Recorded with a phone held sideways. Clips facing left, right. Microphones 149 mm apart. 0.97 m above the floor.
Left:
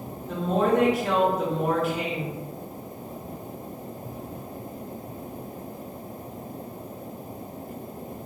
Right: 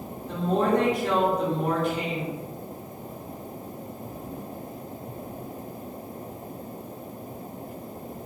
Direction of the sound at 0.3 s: 5° left (ahead or behind).